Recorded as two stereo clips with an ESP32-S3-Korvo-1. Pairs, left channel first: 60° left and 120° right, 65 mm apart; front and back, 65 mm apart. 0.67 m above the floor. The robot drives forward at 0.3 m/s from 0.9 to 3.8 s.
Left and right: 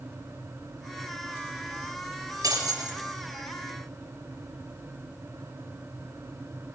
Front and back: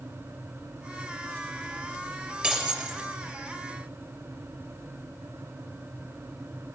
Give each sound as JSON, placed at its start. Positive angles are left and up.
{"t": 2.4, "sound": "breaking glass", "azimuth_deg": -100, "distance_m": 5.0}